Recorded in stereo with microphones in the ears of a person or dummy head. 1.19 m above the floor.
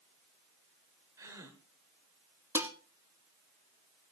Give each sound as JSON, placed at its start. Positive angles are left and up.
{"t": 1.2, "sound": "a gasp", "side_deg": -15, "distance_m": 1.4}
{"t": 2.5, "sound": "dishes clattering", "side_deg": -10, "distance_m": 1.3}